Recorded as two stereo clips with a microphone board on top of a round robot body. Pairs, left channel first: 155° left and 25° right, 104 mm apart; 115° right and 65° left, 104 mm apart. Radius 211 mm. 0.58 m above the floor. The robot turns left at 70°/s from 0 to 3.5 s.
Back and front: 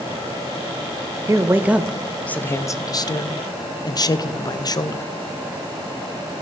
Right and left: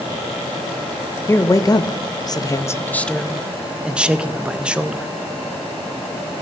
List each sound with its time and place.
1.3 s a man speaking: 60° right, 0.8 m; by 5.1 s 140° left, 0.8 m